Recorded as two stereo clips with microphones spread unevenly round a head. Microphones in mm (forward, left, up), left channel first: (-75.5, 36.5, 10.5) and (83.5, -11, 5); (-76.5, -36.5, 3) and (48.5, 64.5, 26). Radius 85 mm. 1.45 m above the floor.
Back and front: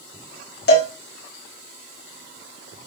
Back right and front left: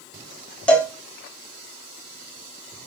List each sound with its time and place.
0.7 s a cowbell: 135° left, 3 m